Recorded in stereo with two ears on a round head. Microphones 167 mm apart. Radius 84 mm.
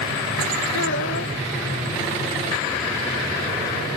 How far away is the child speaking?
About 2.5 m.